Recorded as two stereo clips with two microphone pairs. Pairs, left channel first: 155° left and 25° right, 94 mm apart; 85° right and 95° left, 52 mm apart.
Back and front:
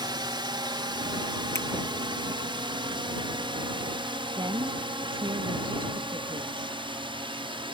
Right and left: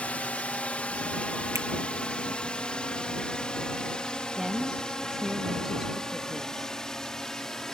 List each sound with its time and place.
0.0 s a drone: 30° right; by 7.7 s 5° right
1.6 s a finger snap: 95° left
4.4 s a woman speaking: 5° left